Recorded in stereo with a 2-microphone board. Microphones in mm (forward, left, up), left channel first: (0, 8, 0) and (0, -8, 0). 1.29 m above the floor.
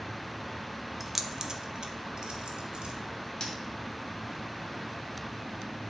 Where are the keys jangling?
10° right (ahead or behind), 0.5 m; by 3.0 s 80° right, 1.5 m.